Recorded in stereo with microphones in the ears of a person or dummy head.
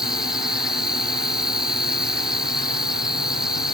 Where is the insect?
5° left (ahead or behind).